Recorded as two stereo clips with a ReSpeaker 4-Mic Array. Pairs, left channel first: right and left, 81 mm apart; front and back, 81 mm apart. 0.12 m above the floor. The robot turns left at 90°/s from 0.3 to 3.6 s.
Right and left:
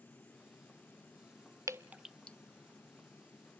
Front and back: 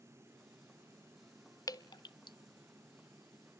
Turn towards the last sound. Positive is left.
turn(degrees=-135)